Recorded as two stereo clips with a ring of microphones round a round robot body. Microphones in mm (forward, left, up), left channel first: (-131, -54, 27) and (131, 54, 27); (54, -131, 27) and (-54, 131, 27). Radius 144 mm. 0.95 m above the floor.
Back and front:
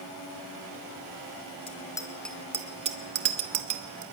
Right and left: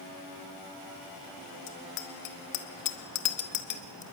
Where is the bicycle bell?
85° right, 2.5 m; by 4.0 s straight ahead, 2 m.